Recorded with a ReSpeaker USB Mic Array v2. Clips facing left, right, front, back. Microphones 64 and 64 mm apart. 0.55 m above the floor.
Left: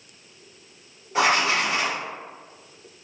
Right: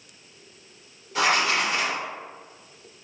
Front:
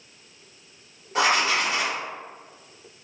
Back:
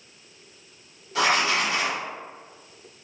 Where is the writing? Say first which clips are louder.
Left 2 dB, even; 40° left, 1.4 m.